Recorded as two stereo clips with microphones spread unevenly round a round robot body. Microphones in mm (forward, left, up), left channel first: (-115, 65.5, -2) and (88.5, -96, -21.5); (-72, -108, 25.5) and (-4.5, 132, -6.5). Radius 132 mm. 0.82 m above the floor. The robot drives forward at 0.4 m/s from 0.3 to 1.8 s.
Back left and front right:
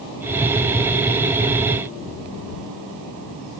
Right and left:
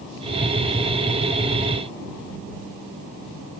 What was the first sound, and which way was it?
Only background noise.